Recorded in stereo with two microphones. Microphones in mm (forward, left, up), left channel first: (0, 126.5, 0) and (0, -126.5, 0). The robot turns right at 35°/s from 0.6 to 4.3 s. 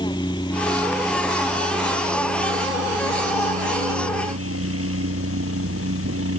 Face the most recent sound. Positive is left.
turn(degrees=-70)